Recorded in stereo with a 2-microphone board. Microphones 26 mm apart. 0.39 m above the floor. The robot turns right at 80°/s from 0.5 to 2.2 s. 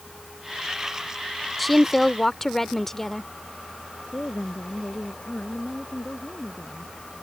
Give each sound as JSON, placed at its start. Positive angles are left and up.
{"t": 1.6, "sound": "a woman speaking", "side_deg": 5}
{"t": 4.1, "sound": "a woman speaking", "side_deg": 80}